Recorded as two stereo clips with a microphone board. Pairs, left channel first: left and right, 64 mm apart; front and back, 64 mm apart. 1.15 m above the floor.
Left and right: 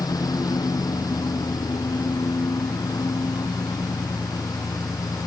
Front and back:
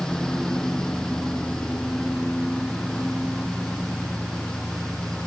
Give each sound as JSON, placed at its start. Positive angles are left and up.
{"t": 0.0, "sound": "a lawn mower", "azimuth_deg": 85}